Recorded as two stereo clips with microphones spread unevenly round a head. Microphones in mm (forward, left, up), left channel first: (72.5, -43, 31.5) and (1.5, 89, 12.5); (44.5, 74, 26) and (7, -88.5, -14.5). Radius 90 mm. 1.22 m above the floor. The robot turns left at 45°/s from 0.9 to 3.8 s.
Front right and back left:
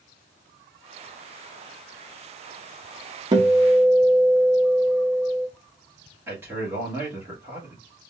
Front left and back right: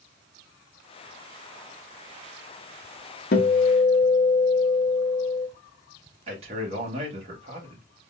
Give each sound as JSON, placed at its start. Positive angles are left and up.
{"t": 3.3, "sound": "a guitar", "azimuth_deg": 90, "distance_m": 0.7}
{"t": 6.3, "sound": "a man speaking", "azimuth_deg": -160, "distance_m": 1.2}